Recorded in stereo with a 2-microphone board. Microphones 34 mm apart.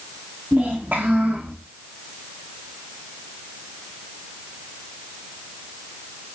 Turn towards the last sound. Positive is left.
turn(degrees=-65)  # may be behind; listen again after turning